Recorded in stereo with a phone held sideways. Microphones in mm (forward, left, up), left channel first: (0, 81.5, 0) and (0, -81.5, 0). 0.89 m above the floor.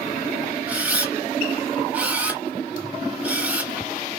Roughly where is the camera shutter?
Centre.